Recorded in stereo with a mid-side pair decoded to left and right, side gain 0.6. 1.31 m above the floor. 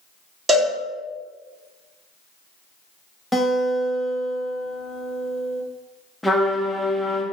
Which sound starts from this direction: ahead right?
A cowbell, at 0.5 s.